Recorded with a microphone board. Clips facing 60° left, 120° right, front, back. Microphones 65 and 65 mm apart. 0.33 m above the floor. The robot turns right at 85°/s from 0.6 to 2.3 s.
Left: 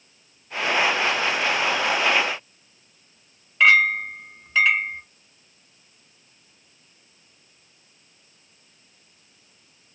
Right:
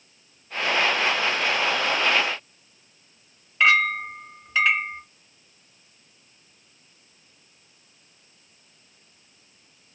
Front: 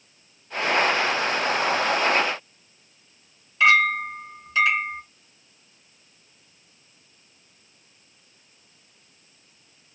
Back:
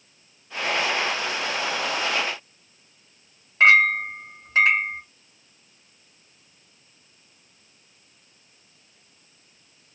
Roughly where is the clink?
Behind left.